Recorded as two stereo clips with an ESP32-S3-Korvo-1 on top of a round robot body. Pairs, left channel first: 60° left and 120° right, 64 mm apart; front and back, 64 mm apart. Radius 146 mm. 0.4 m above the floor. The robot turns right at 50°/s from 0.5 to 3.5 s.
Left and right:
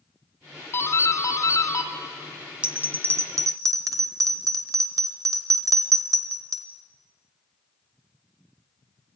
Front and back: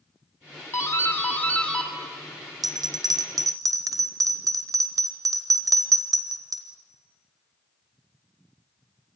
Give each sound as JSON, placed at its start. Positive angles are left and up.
{"t": 0.7, "sound": "a doorbell", "azimuth_deg": 30, "distance_m": 2.0}
{"t": 2.6, "sound": "a bell", "azimuth_deg": 165, "distance_m": 1.2}